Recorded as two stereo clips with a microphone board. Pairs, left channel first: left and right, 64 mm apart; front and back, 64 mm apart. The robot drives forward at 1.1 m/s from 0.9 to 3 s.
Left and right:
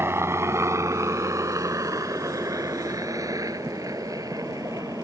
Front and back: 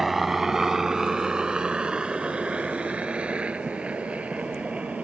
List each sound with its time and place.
0.0 s a helicopter: 95° right; by 5.0 s 110° right